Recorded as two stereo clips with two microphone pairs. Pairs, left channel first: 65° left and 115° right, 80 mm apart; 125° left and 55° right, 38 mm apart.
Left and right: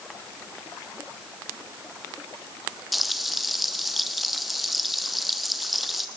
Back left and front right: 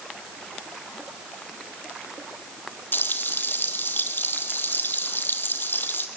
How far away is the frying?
About 1.5 m.